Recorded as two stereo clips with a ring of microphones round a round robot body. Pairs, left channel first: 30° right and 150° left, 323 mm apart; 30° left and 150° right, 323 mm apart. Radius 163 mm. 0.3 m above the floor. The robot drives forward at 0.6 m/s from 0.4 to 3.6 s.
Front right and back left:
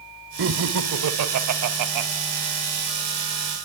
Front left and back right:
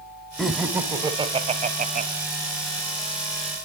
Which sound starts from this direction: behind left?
Laughter, at 0.4 s.